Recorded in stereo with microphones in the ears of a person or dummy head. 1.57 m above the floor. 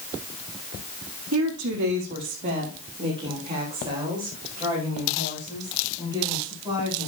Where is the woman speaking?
80° right, 1.6 m; by 7.1 s 5° right (ahead or behind), 7.5 m.